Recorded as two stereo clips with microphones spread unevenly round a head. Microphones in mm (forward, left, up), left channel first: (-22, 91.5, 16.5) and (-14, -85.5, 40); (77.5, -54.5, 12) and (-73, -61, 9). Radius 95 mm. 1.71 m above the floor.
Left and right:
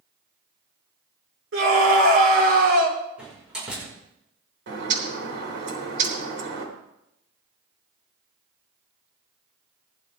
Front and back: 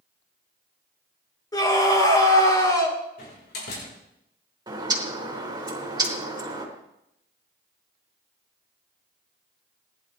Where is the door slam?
5° right, 5 m.